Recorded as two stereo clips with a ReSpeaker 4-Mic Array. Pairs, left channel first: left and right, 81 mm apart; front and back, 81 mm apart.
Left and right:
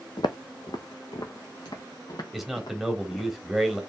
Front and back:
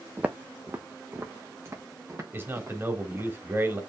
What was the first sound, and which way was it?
Footsteps, 105° left.